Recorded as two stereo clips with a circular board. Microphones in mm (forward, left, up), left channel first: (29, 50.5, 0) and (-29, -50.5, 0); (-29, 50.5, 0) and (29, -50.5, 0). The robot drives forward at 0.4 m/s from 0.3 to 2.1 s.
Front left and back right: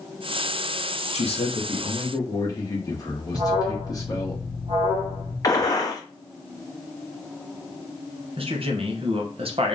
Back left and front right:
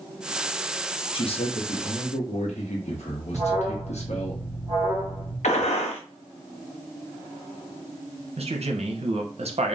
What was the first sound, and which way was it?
A man speaking, 85° left.